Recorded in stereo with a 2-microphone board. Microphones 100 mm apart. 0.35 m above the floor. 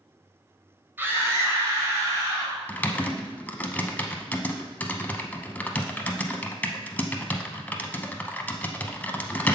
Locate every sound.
1.0 s a scream: 20° right (ahead or behind), 1.2 m; by 2.6 s 35° right (ahead or behind), 3 m
2.7 s typing on a keyboard: 15° left (ahead or behind), 0.5 m